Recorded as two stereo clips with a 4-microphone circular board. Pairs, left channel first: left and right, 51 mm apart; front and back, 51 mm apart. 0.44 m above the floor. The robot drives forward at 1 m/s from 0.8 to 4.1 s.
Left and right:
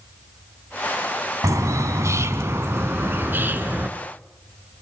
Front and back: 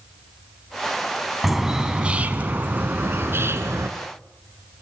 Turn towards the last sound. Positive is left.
turn(degrees=-150)